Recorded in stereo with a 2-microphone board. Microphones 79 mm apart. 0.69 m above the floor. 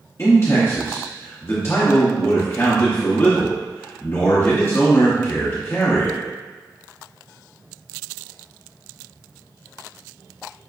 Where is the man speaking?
35° left (ahead or behind), 1.0 m.